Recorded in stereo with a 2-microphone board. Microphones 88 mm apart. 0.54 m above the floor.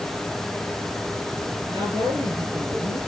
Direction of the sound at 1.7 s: 80° right.